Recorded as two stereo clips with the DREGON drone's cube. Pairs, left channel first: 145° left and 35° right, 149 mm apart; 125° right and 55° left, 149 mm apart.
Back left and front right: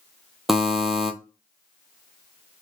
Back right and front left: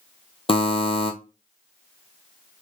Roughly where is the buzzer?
Behind right.